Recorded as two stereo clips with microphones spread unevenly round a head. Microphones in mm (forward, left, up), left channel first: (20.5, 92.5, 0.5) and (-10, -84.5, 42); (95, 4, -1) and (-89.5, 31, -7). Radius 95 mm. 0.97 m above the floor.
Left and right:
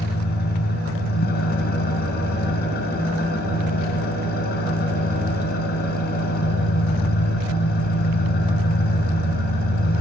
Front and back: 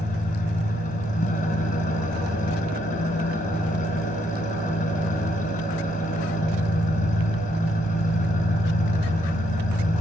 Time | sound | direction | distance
0.0 | an engine running | 40° left | 3 m